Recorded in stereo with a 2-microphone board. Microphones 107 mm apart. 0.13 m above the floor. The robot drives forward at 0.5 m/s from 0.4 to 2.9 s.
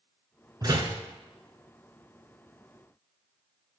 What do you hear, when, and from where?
0.6 s a door slam: 40° right (ahead or behind), 0.9 m